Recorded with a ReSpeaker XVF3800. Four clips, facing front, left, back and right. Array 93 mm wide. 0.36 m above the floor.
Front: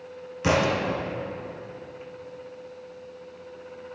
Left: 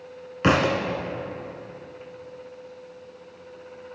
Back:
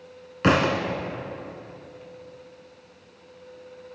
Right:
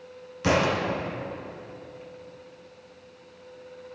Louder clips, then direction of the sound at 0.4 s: Left 3 dB, back 2 dB; 130° left.